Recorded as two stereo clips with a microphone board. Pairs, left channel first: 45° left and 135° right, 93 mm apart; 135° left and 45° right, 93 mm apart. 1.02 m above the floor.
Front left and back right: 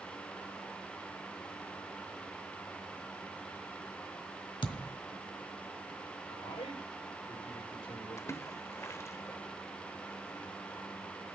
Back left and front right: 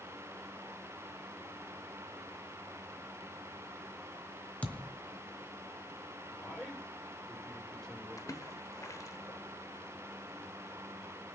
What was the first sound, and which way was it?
A thud, 60° left.